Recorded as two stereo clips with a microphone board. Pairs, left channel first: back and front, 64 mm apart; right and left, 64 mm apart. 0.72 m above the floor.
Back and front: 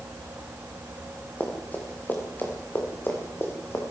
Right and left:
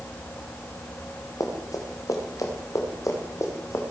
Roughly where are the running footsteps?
Behind right.